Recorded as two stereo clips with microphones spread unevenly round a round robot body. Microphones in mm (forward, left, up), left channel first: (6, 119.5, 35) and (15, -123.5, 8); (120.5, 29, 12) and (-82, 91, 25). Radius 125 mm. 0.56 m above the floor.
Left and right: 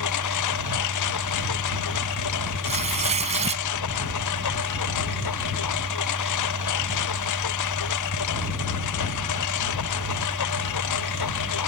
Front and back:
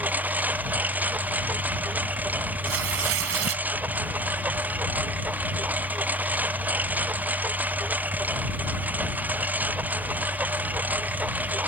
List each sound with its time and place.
0.0 s a lawn mower: 80° left
2.6 s tearing paper: 155° right